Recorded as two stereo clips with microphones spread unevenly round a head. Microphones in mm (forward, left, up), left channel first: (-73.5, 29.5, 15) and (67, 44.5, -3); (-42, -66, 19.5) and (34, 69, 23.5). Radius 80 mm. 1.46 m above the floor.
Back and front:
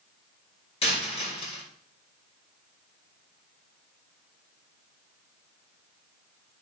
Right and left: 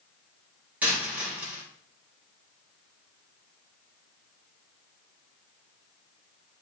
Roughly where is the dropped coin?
Behind left.